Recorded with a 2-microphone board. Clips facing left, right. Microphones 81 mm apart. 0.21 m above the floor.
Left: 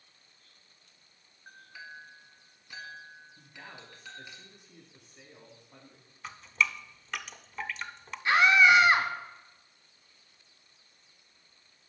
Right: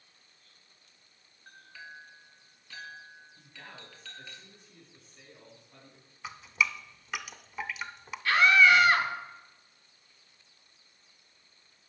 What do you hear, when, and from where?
1.5 s a clink: 15° left (ahead or behind), 1.6 m
3.4 s a man speaking: 20° left (ahead or behind), 1.5 m
6.2 s dripping: 10° right (ahead or behind), 0.5 m
8.2 s a scream: 20° left (ahead or behind), 1.3 m